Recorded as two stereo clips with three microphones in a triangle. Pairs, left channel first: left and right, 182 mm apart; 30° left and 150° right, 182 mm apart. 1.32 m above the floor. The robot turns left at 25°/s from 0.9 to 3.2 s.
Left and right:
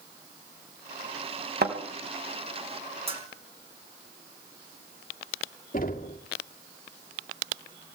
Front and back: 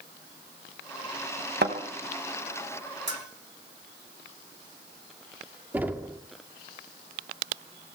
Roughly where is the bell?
Behind right.